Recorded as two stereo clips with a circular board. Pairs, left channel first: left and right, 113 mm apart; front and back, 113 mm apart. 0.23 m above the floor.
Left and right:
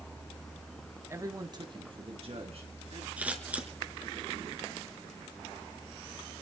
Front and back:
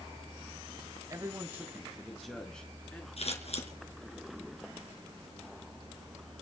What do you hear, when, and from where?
1.1 s a man speaking: 145° right, 1.9 m; by 3.1 s 75° right, 3.5 m
3.2 s scissors: 15° right, 3.5 m